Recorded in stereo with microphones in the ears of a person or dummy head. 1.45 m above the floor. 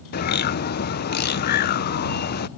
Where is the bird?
50° left (ahead or behind).